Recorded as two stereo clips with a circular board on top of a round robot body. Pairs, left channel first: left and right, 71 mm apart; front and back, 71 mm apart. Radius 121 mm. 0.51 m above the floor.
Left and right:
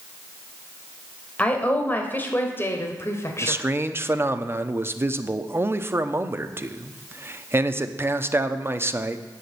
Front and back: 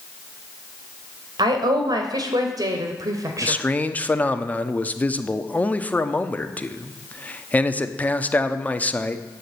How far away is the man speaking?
About 1.1 m.